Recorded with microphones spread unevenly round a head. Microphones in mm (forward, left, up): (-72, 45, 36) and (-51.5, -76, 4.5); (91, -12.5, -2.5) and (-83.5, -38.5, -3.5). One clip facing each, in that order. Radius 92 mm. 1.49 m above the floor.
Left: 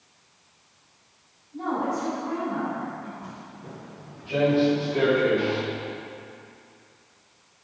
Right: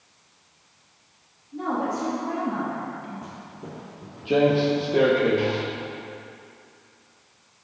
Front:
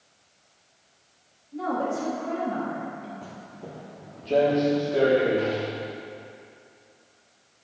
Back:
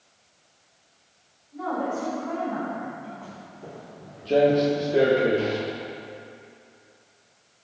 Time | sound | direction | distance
1.5 | a woman speaking | 40° right | 3.5 m
3.2 | footsteps | 40° right | 2.0 m